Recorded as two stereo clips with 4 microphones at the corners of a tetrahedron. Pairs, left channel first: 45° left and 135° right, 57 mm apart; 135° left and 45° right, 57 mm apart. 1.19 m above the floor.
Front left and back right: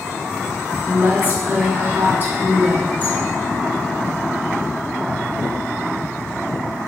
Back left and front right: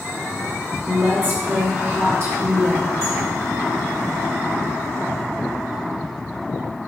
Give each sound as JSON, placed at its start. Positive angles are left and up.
{"t": 0.9, "sound": "a woman speaking", "azimuth_deg": -80, "distance_m": 1.7}